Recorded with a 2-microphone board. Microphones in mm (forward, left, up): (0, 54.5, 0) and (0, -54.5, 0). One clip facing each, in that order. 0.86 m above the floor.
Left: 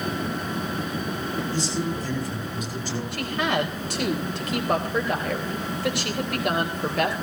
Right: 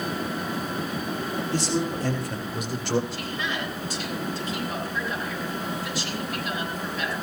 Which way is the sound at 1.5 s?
75° right (ahead or behind).